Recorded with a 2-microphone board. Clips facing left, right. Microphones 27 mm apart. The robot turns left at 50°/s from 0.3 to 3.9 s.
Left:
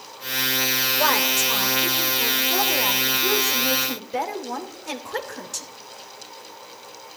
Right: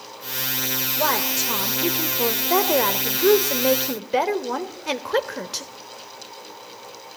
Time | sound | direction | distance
1.0 | a woman speaking | 10° left | 3 m